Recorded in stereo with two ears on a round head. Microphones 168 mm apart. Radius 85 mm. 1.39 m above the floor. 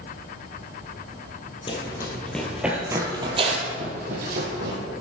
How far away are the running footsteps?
About 1.8 m.